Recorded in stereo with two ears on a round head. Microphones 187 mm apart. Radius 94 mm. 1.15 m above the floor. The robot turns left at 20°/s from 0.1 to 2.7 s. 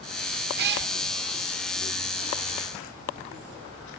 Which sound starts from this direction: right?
A cat meowing, at 0.6 s.